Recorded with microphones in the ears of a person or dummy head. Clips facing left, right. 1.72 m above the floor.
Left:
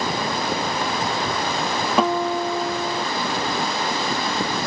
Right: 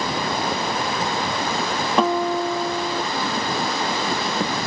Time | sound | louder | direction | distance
2.0 | a guitar | right 1 dB | 5° left (ahead or behind) | ?